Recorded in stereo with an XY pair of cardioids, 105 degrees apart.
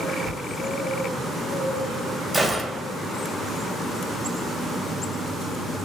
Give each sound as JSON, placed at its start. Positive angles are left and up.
{"t": 0.2, "sound": "a thud", "azimuth_deg": 55, "distance_m": 2.5}
{"t": 2.3, "sound": "a gunshot", "azimuth_deg": -15, "distance_m": 1.3}